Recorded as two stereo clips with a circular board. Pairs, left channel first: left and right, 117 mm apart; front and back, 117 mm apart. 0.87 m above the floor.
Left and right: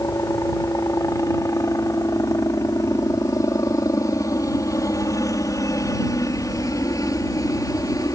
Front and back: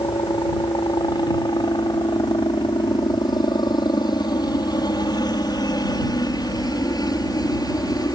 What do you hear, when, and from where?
0.0 s a helicopter: 35° left; by 8.1 s 40° left